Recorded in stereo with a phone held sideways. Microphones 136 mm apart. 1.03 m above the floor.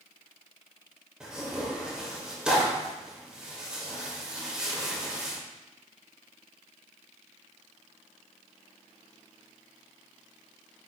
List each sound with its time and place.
1.2 s tearing paper: 5° right (ahead or behind), 1.9 m